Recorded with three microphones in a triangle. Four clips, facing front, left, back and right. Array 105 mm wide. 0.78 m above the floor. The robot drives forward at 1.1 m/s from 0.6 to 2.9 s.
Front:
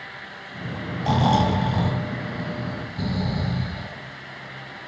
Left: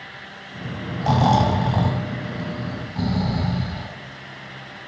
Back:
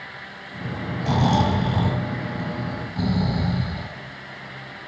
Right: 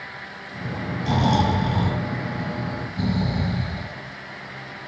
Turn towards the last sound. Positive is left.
turn(degrees=125)